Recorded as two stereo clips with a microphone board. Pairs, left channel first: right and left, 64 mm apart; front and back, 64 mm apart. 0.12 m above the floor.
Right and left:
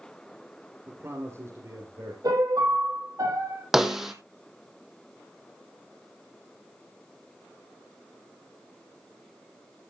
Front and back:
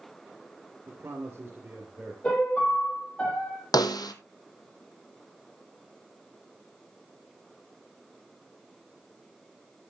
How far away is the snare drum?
About 1.3 m.